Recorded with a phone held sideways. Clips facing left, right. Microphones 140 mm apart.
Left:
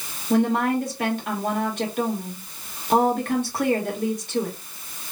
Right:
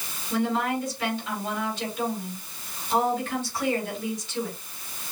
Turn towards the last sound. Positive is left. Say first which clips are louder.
# left 5 dB
turn(degrees=60)  # may be behind; listen again after turning